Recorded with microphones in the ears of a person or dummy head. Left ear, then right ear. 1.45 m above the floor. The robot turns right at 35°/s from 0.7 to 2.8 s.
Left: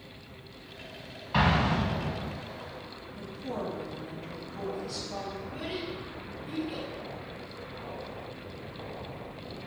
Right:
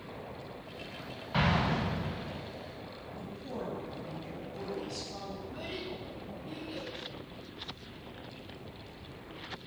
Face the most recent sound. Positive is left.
turn(degrees=20)  # may be behind; listen again after turning